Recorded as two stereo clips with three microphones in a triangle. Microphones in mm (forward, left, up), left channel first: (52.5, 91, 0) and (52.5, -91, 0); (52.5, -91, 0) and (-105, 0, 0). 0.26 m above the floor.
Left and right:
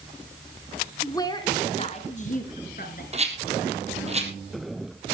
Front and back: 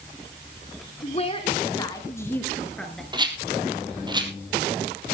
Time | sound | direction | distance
1.0 | a woman speaking | 15° left | 2.5 m
3.1 | a rattle | 145° right | 3 m